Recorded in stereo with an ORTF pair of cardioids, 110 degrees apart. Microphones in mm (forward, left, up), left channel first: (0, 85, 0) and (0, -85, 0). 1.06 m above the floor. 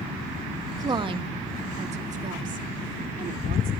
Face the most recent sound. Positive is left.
turn(degrees=-55)